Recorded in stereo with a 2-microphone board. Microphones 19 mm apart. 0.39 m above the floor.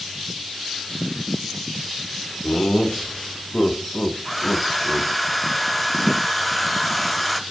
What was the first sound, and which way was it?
Laughter, 50° left (ahead or behind).